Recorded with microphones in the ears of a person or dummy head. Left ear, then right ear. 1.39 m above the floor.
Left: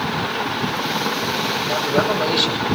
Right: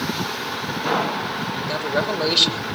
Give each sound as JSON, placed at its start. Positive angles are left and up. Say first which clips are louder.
{"t": 1.7, "sound": "a man speaking", "louder": "left 3 dB", "side_deg": -20, "distance_m": 3.5}